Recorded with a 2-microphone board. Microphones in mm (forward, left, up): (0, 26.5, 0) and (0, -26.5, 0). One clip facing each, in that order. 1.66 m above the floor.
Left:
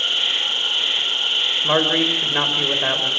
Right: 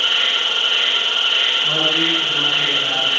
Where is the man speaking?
45° left (ahead or behind), 5.5 m.